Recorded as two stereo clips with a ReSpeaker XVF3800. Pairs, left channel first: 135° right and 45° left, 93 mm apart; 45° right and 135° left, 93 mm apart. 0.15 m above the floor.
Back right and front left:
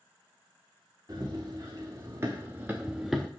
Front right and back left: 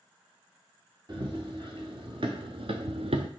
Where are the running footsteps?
100° left, 2.5 m; by 3.3 s 140° left, 0.7 m.